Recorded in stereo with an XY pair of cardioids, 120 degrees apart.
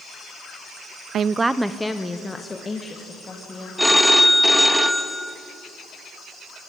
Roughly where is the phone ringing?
Ahead.